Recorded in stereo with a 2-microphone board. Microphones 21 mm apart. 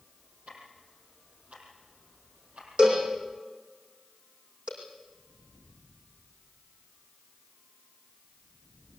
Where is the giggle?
No giggle in this recording.